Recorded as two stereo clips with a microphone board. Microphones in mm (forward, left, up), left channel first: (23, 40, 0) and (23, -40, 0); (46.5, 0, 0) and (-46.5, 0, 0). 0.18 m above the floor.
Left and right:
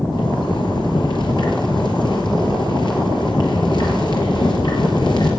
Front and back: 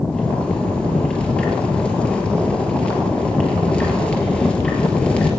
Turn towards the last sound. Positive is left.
turn(degrees=80)